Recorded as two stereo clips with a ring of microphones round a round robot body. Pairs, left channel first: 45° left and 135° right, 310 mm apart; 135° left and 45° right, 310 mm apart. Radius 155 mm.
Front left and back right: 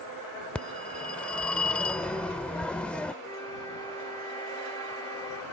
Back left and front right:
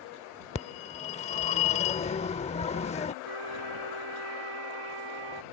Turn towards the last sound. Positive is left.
turn(degrees=-35)